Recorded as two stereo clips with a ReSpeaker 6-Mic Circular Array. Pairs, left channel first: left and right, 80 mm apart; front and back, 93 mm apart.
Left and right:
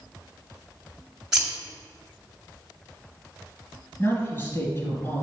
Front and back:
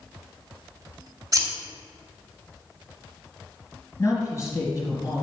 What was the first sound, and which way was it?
Scissors, 170° right.